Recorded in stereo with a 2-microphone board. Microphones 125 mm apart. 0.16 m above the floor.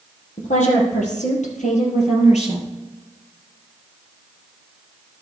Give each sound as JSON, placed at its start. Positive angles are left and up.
{"t": 0.4, "sound": "a woman speaking", "side_deg": 75, "distance_m": 4.0}